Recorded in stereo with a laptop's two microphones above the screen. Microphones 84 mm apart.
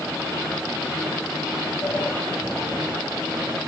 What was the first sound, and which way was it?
A sliding door, 40° left (ahead or behind).